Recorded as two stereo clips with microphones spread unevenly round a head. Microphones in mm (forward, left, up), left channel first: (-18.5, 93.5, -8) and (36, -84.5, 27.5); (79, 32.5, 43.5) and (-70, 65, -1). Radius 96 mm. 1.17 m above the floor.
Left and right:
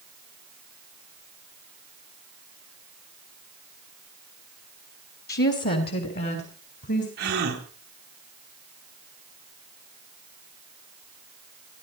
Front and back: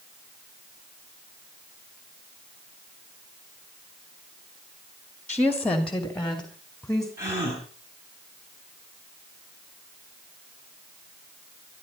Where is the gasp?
115° right, 4.5 m.